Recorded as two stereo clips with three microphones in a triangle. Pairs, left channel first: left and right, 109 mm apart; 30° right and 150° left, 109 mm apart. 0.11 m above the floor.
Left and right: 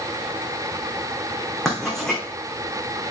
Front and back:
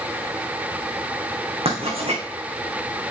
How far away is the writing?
About 3.5 m.